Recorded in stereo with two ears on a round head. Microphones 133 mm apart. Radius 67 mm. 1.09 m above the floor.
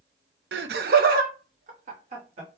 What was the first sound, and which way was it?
Laughter, 85° right.